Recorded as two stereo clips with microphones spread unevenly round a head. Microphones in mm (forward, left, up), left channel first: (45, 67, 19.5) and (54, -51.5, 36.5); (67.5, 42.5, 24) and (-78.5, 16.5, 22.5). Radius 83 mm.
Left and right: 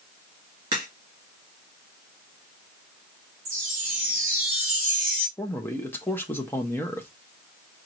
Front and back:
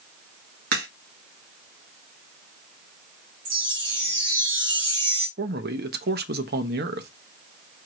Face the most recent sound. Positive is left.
turn(degrees=175)